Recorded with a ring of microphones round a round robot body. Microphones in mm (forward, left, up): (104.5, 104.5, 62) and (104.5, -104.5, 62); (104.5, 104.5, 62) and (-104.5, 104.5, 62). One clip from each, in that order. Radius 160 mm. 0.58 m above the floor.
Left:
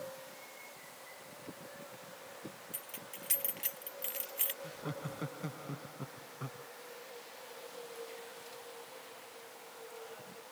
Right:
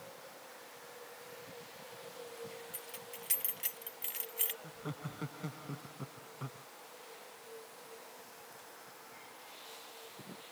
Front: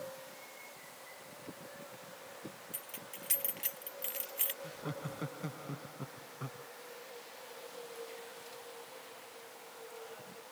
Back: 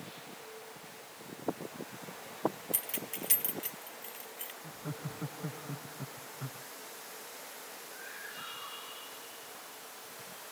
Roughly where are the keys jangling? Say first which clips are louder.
Even, back 7 dB; behind.